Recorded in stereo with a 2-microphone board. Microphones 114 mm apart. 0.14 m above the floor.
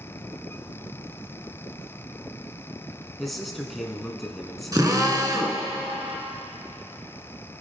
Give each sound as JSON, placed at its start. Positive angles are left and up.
{"t": 3.2, "sound": "a man speaking", "side_deg": 0, "distance_m": 1.2}
{"t": 4.7, "sound": "a drill", "side_deg": -35, "distance_m": 1.5}